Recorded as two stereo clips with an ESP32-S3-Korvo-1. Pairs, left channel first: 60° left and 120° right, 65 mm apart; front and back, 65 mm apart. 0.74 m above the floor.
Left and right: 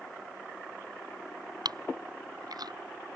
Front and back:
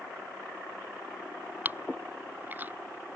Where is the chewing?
115° right.